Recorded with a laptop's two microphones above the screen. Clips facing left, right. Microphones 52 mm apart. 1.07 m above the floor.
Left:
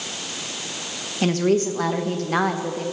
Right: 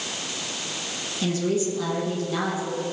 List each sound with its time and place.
1.2 s a woman speaking: 55° left (ahead or behind), 1.2 m